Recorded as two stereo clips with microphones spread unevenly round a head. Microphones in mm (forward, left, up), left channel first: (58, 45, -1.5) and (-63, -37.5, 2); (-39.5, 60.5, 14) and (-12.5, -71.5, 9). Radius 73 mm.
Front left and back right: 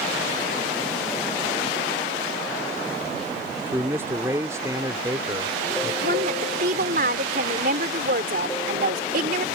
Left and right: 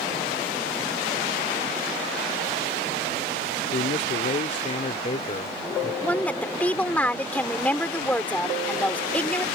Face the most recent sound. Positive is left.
turn(degrees=180)